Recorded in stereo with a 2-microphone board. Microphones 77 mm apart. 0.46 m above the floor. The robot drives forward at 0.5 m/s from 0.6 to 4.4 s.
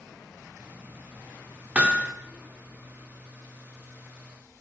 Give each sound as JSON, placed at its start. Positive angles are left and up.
{"t": 1.8, "sound": "hammering", "side_deg": -20, "distance_m": 0.9}